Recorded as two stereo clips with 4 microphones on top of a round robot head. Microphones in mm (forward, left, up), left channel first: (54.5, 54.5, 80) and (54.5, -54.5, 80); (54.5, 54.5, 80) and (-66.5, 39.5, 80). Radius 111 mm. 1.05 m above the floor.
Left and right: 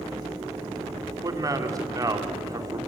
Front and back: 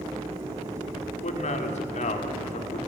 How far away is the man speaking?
About 2.5 m.